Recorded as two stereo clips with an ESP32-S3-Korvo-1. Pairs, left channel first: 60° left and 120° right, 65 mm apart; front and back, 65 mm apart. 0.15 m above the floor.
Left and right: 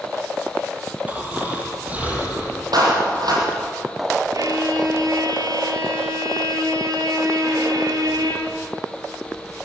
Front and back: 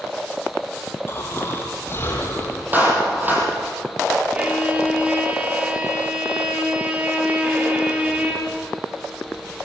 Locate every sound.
1.1 s snoring: 55° right, 5 m
2.7 s a clap: 120° right, 5.5 m
4.3 s a violin: 110° right, 3.5 m